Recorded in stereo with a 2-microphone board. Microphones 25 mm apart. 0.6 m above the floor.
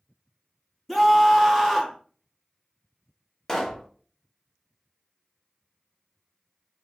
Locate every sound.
0.9 s a scream: 15° left (ahead or behind), 0.7 m
3.5 s a pop: 25° left (ahead or behind), 0.7 m